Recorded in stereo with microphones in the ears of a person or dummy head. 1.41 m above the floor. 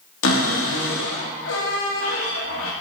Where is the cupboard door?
85° left, 2 m.